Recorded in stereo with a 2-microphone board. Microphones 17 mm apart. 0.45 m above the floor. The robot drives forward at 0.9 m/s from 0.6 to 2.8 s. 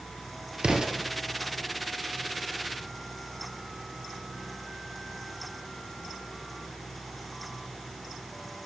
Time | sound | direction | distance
0.6 | an explosion | 75° right (ahead or behind) | 4.5 m